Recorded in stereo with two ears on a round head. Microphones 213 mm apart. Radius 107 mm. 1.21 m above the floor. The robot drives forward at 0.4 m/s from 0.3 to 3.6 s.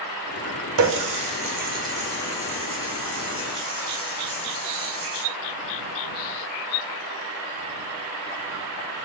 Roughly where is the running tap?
Right.